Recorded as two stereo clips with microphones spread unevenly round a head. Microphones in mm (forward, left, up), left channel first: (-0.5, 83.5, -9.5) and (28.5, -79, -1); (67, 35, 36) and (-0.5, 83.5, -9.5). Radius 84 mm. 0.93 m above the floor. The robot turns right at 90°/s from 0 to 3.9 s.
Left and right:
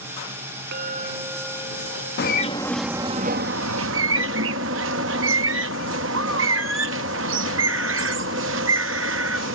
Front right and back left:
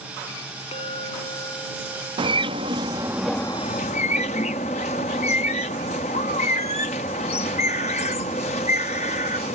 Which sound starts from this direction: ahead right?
A clink, at 0.7 s.